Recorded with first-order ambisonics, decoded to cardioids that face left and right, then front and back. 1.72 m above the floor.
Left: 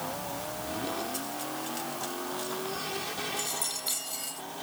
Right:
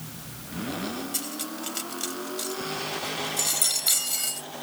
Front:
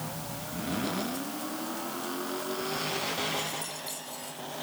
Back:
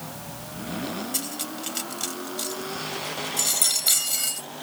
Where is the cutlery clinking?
150° right.